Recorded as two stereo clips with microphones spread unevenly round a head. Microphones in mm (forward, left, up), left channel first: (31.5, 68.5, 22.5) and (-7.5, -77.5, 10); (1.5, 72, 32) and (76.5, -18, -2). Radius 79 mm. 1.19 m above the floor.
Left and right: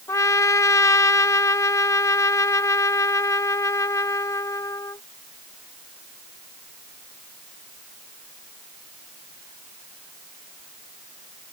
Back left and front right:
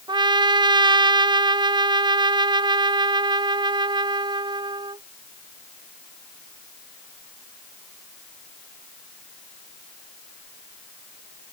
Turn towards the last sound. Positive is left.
turn(degrees=5)